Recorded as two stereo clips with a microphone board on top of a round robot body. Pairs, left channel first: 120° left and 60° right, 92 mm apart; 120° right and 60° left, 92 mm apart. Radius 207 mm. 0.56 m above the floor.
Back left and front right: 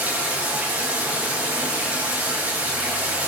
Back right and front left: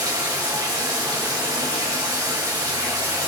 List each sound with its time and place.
0.0 s running water: 10° left, 4 m